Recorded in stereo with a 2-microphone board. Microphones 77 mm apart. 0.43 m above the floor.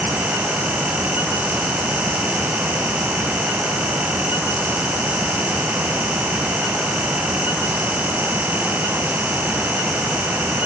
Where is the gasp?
I don't hear a gasp.